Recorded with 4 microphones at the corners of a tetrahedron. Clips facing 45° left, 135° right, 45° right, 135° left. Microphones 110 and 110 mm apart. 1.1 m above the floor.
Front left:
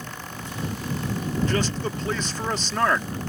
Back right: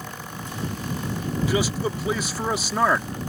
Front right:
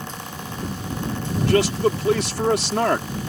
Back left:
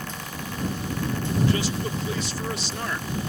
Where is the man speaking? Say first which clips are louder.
Back right 2 dB, front right 8 dB; 55° right.